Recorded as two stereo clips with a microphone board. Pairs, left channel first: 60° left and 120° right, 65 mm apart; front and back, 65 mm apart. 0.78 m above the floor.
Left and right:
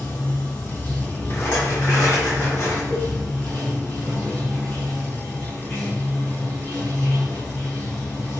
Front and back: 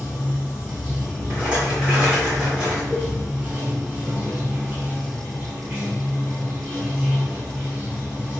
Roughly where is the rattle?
Left.